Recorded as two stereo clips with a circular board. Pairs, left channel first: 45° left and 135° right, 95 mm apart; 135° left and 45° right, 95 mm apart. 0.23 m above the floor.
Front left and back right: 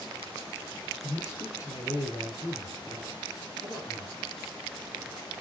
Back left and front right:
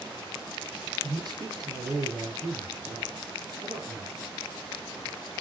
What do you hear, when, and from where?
1.0 s a man speaking: 10° right, 3.5 m